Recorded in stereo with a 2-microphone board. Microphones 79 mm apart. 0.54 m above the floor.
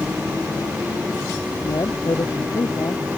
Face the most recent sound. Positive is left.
turn(degrees=50)  # may be behind; listen again after turning